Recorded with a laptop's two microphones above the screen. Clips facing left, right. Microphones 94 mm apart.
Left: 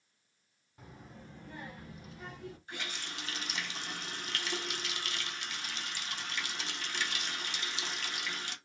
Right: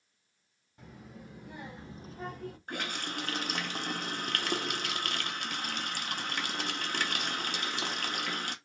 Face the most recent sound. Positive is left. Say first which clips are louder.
# right 8 dB
turn(degrees=-55)  # may be behind; listen again after turning